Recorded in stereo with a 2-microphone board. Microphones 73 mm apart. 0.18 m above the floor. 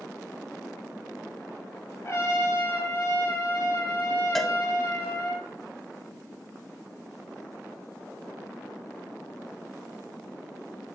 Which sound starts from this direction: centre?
A cowbell, at 4.3 s.